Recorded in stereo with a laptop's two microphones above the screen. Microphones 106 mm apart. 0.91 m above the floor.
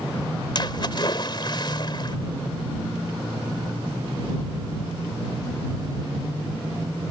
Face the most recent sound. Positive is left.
turn(degrees=45)  # may be behind; listen again after turning